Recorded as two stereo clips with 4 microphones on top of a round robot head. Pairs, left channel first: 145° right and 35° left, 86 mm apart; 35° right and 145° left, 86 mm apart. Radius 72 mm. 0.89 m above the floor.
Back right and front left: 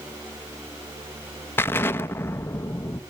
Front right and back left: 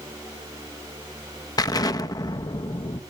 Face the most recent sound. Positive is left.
turn(degrees=-80)